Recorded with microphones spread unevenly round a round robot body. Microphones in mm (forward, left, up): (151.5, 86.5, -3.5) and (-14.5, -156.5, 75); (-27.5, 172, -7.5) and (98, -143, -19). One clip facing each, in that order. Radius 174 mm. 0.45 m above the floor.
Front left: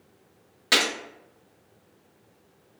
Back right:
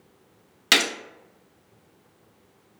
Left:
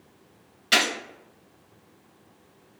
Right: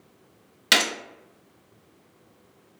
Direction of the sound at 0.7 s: 75° right.